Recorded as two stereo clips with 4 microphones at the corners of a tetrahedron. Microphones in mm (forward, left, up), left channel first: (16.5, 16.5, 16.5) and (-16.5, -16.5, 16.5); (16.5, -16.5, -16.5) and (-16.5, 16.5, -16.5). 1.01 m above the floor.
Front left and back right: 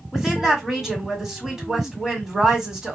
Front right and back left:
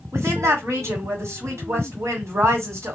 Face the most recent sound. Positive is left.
turn(degrees=145)